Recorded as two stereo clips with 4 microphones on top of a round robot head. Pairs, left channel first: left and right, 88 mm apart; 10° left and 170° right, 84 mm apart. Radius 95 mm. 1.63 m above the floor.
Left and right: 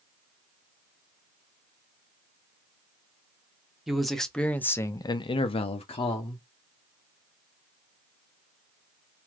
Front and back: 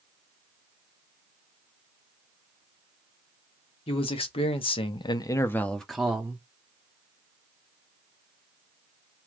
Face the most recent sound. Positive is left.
turn(degrees=115)